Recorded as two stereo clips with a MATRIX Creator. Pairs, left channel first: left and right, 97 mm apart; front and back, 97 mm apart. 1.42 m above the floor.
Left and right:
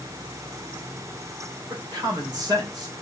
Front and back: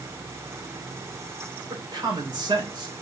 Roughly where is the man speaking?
Behind right.